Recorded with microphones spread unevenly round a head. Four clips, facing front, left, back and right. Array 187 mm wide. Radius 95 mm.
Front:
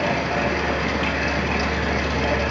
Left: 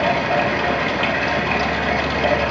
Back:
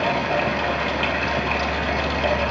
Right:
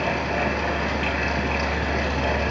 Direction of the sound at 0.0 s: 100° left.